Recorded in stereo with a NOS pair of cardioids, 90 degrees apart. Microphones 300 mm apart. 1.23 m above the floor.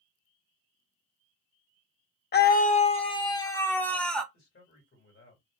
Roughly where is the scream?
Ahead left.